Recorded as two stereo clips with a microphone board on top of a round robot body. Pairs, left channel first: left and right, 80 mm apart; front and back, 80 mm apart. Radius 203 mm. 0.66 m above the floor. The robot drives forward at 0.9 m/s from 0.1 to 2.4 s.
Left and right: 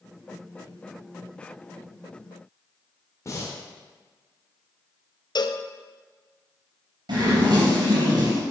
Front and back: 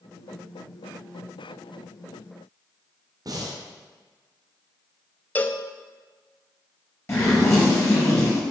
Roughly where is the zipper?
Ahead right.